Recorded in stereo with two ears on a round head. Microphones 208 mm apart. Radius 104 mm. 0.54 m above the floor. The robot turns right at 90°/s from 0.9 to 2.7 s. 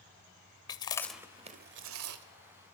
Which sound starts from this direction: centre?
Chewing, at 0.7 s.